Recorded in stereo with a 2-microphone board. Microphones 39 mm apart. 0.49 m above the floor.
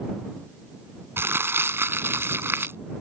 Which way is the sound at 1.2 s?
80° right.